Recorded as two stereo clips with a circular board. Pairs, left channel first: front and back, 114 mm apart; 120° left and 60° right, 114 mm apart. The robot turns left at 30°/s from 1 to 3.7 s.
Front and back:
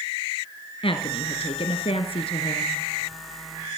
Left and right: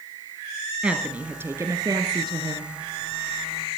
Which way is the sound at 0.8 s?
20° left.